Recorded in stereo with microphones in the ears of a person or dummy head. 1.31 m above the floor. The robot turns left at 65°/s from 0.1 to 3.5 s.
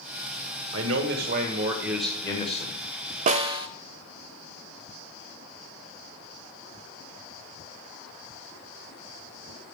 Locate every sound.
0.7 s a man speaking: 95° right, 1.5 m; by 2.8 s 135° left, 1.5 m
3.3 s a snare drum: 45° right (ahead or behind), 0.5 m; by 3.7 s 30° right (ahead or behind), 0.5 m